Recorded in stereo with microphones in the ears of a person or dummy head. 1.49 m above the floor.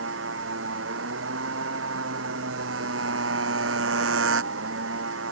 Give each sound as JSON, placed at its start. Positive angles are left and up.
{"t": 0.0, "sound": "a motorcycle", "side_deg": -80}